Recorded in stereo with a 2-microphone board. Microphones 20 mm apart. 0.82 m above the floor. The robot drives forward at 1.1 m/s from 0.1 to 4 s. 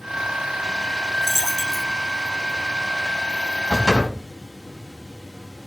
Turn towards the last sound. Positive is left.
turn(degrees=25)  # may be behind; listen again after turning